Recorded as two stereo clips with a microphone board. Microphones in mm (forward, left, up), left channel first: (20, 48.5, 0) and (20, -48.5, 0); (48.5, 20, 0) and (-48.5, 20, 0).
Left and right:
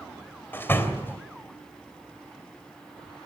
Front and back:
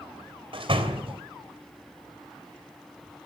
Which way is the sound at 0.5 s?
160° left.